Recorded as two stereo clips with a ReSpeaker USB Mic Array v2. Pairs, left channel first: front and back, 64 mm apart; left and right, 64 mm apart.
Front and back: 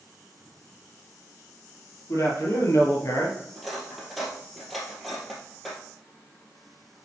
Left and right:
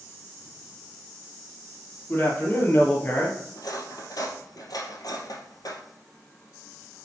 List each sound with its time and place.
2.1 s a man speaking: 35° left, 3.5 m; by 3.4 s 30° left, 2.5 m
3.5 s cutlery clinking: 90° left, 2 m